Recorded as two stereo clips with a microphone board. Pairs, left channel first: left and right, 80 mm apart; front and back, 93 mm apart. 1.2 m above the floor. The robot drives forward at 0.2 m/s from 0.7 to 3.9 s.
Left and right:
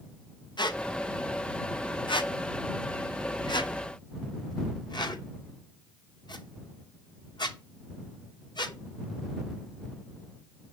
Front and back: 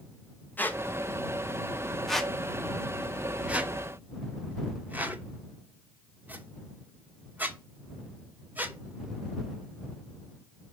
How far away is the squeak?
About 1.0 m.